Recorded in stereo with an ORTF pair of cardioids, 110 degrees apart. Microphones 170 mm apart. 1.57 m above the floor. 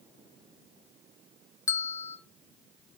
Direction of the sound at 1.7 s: 15° left.